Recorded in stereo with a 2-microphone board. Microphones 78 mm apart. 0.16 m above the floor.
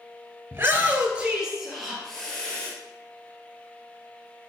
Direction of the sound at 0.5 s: 30° right (ahead or behind).